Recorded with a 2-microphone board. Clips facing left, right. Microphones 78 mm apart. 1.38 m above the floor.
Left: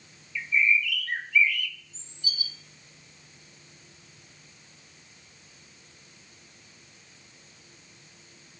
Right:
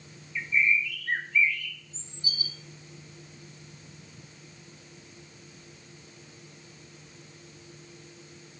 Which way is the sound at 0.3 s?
30° right (ahead or behind).